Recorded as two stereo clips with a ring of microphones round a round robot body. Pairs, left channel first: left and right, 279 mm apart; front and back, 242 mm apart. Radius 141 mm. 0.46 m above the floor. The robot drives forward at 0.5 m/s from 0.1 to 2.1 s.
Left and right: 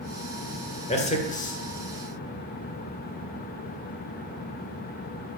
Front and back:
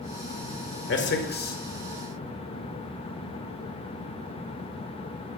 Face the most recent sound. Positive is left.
turn(degrees=55)